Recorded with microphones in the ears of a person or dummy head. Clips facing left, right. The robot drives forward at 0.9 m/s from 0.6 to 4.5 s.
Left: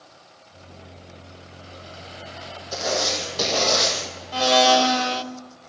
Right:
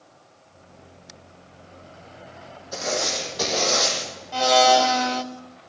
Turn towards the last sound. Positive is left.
turn(degrees=15)  # may be behind; listen again after turning